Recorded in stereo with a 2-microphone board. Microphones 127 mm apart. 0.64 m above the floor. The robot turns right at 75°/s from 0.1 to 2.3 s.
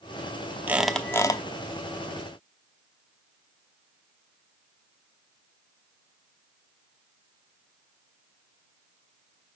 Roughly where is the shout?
No shout in this recording.